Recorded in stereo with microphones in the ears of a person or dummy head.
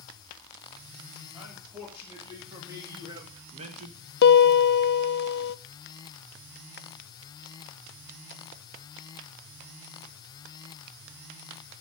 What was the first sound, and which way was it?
A man speaking, 10° right (ahead or behind).